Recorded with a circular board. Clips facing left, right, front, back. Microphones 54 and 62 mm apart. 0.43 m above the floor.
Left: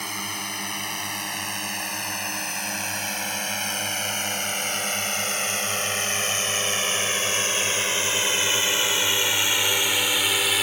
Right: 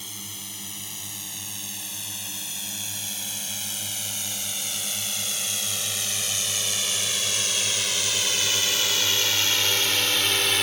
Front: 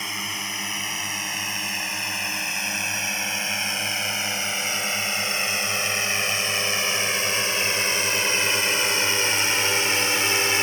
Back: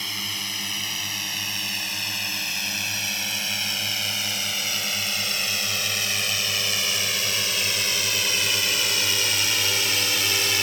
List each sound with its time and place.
0.0 s a drone: 70° left; by 10.6 s 10° left